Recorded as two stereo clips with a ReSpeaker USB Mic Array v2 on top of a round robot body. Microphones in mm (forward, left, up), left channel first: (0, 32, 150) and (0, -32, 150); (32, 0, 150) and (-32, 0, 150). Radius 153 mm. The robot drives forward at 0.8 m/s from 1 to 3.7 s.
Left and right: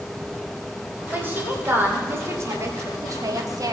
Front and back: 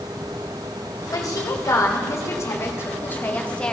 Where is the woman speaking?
30° right, 3 m; by 3.7 s 75° right, 1.5 m.